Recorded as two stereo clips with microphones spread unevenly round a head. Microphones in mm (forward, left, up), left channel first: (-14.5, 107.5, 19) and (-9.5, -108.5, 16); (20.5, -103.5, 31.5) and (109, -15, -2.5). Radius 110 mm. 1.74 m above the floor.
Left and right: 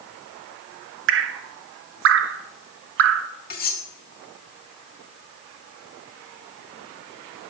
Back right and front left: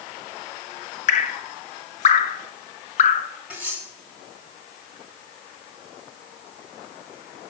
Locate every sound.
1.1 s dripping: 125° right, 0.5 m
3.5 s cutlery clinking: 135° left, 1.7 m